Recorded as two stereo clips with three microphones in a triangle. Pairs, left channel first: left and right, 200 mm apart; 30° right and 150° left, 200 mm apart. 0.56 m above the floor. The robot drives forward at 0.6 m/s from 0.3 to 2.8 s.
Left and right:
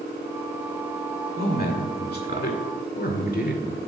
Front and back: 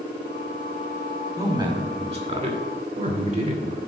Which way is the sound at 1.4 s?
85° left.